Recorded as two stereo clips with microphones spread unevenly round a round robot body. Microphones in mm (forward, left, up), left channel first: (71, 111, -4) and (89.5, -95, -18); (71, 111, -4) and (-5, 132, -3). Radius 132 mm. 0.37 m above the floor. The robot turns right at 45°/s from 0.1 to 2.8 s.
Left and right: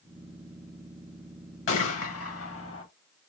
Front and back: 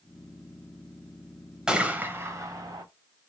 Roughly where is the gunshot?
Left.